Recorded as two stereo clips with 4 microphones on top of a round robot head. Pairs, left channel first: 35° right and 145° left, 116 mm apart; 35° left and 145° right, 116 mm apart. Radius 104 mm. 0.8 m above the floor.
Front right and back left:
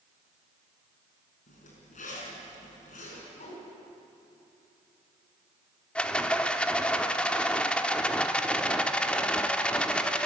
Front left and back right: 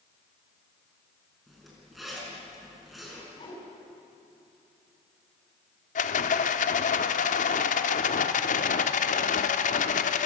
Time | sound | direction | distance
1.5 | a zipper | 55° right | 5.5 m
3.3 | a whoosh | 10° right | 6 m
6.0 | a rattle | 45° left | 0.9 m